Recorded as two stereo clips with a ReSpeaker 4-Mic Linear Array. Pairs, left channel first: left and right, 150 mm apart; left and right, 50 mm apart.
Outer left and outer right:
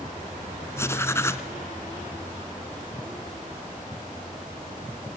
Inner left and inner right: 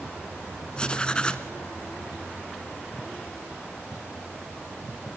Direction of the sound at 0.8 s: 20° left (ahead or behind).